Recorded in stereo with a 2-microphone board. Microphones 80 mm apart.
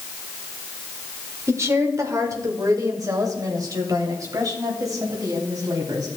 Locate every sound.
1.5 s a woman speaking: 35° right (ahead or behind), 1.5 m; by 6.1 s 50° right (ahead or behind), 3.5 m